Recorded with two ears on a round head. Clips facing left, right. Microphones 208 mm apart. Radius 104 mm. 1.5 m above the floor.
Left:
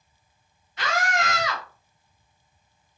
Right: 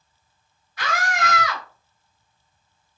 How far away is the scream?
About 1.2 m.